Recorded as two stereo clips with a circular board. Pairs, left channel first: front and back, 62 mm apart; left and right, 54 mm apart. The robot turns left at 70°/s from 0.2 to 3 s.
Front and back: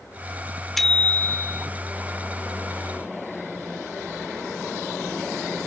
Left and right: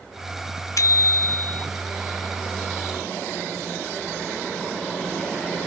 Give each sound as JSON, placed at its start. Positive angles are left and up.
{"t": 0.8, "sound": "a bicycle bell", "azimuth_deg": 90}